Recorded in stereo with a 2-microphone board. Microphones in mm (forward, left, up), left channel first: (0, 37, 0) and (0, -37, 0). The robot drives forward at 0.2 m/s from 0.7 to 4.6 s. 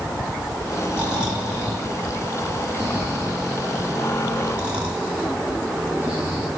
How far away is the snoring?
About 7 m.